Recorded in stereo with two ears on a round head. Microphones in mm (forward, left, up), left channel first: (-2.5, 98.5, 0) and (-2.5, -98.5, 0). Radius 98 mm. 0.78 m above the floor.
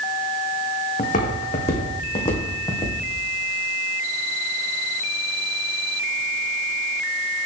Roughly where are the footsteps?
Left.